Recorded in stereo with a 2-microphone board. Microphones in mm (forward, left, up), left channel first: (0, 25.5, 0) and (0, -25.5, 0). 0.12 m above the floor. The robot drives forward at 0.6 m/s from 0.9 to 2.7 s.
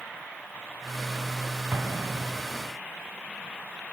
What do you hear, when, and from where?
1.7 s an explosion: 50° right (ahead or behind); by 2.7 s 55° right (ahead or behind)